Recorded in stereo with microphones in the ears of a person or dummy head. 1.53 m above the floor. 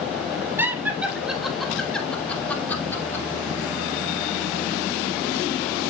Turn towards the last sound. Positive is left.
turn(degrees=20)  # may be behind; listen again after turning